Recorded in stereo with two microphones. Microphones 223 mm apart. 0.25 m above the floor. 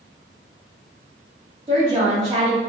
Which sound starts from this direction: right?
A woman speaking, at 1.7 s.